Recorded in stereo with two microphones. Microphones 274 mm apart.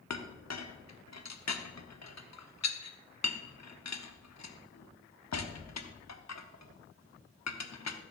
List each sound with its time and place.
0.1 s a clink: 75° left (ahead or behind), 0.9 m